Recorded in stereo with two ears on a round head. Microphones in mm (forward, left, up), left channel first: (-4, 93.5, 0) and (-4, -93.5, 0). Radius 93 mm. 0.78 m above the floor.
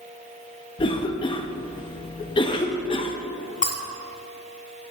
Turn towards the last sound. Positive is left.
turn(degrees=40)  # may be behind; listen again after turning